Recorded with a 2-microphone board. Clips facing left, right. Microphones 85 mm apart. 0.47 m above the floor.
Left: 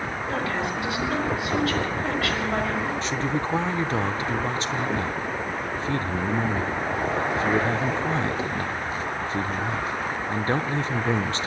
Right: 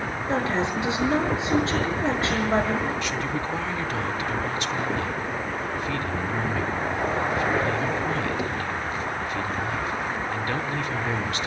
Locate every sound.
0.3 s a woman speaking: 25° right (ahead or behind), 5 m
3.0 s a man speaking: 30° left (ahead or behind), 0.8 m